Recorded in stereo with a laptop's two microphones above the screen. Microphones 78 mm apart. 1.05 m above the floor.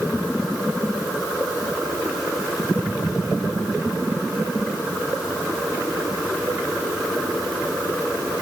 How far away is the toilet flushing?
I don't hear a toilet flushing.